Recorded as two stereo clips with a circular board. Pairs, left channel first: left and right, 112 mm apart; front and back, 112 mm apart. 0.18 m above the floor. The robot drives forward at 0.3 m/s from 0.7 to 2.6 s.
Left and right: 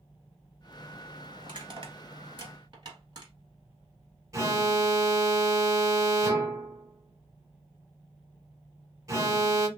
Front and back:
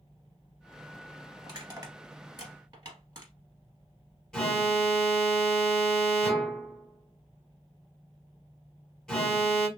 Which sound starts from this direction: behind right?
Crushing, at 1.4 s.